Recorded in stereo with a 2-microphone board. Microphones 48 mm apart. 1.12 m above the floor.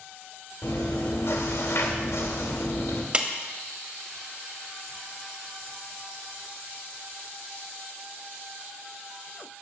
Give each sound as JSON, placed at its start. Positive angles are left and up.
{"t": 0.6, "sound": "chewing", "side_deg": 70, "distance_m": 1.9}
{"t": 3.1, "sound": "a clap", "side_deg": -25, "distance_m": 1.4}